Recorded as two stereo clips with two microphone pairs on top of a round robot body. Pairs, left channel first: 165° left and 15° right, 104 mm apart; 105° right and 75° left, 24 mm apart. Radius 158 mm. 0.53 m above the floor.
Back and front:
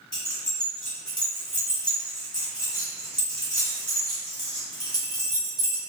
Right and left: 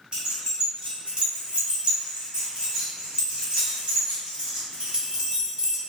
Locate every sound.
0.1 s keys jangling: 125° left, 1.6 m